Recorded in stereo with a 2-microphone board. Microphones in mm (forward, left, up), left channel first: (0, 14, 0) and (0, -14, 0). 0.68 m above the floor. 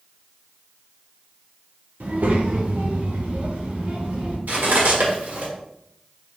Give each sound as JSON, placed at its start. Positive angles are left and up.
{"t": 2.0, "sound": "a child speaking", "side_deg": -70, "distance_m": 1.0}
{"t": 4.5, "sound": "cutlery clinking", "side_deg": -80, "distance_m": 1.3}